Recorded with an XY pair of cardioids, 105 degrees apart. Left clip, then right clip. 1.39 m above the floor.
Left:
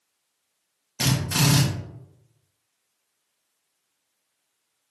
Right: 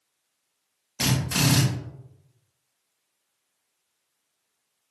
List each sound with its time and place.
1.0 s a drill: straight ahead, 1.4 m